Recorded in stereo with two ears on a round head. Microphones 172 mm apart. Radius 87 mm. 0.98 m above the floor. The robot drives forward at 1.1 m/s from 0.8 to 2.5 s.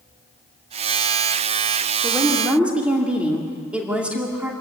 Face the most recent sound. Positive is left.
turn(degrees=-5)  # may be behind; listen again after turning